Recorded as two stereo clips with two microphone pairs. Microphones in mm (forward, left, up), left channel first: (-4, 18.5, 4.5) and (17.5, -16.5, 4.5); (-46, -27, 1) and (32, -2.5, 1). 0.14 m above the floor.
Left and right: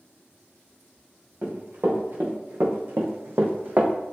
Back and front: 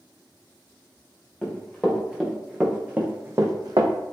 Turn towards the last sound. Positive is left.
turn(degrees=-5)